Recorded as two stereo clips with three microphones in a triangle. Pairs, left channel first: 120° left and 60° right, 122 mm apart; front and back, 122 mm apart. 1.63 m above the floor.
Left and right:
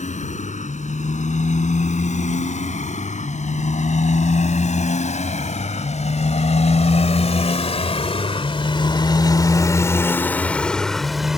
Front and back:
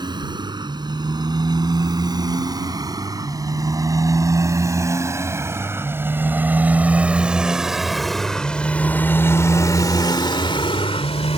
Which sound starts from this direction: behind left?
A motorcycle, at 0.0 s.